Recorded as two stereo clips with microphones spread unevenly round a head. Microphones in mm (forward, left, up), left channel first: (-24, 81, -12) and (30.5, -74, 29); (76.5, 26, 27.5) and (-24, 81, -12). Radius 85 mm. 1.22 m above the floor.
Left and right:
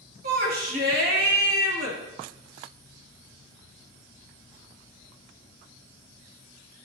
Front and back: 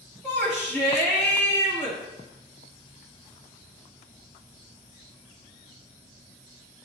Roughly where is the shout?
Right.